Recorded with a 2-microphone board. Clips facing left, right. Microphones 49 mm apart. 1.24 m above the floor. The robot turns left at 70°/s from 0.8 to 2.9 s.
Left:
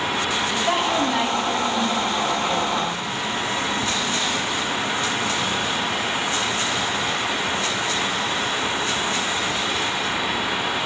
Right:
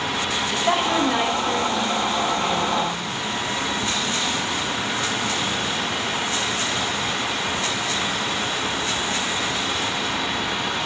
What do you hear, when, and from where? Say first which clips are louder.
0.5 s a woman speaking: right 2 dB; 70° right, 5.5 m; by 3.1 s 140° left, 5.5 m